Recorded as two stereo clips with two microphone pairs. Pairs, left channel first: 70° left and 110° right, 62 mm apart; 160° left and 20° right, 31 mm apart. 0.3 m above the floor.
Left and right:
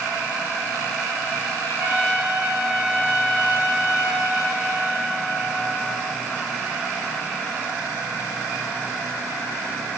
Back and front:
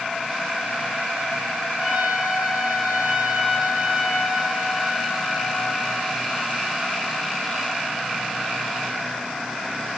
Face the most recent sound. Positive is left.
turn(degrees=-75)